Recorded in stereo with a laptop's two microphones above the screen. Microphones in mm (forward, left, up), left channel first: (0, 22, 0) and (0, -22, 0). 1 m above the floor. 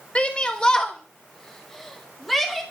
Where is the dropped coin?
No dropped coin in this recording.